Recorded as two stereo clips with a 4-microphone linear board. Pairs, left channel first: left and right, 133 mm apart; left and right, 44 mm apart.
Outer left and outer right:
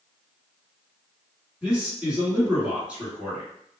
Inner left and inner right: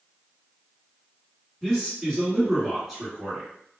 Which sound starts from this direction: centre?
A man speaking, at 1.6 s.